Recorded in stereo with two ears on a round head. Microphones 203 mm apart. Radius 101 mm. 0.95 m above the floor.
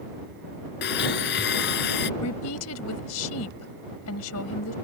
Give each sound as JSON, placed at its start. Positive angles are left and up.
{"t": 0.8, "sound": "a blender", "side_deg": 50}
{"t": 2.2, "sound": "a woman speaking", "side_deg": 75}